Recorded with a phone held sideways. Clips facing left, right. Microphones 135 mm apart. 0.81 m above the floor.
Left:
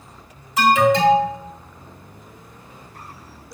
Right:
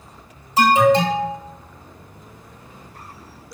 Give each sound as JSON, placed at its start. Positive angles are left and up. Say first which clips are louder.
{"t": 0.6, "sound": "an alarm", "louder": "right 1 dB", "side_deg": -30, "distance_m": 2.0}